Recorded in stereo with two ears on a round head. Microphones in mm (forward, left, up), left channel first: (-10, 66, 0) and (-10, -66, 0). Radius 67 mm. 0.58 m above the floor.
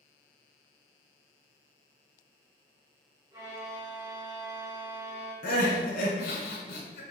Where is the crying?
75° left (ahead or behind), 1.1 m.